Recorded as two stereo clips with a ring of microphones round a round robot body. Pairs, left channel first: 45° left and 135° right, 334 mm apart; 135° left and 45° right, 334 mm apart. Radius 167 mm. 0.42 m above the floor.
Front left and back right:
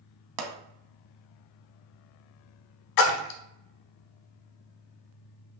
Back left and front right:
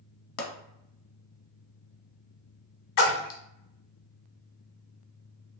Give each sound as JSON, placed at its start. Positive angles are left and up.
{"t": 0.4, "sound": "a pop", "azimuth_deg": -170, "distance_m": 0.8}
{"t": 3.0, "sound": "a splash", "azimuth_deg": 80, "distance_m": 0.7}